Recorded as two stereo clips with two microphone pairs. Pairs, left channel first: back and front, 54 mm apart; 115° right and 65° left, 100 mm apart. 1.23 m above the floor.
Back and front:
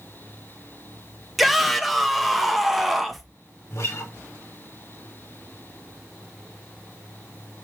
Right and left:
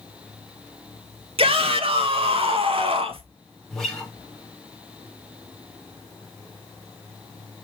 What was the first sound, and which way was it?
A shout, 90° left.